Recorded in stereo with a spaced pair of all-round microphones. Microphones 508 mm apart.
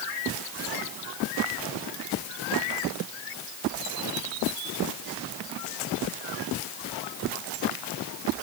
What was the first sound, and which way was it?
Only background noise.